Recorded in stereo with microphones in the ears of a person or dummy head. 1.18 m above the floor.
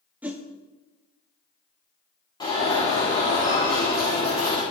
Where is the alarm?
20° left (ahead or behind), 4 m.